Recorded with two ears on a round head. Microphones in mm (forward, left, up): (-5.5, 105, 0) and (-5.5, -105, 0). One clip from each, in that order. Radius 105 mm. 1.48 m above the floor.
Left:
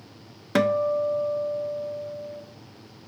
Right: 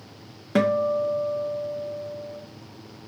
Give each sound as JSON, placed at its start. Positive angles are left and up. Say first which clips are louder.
{"t": 0.6, "sound": "a guitar", "louder": "even", "side_deg": 35, "distance_m": 1.0}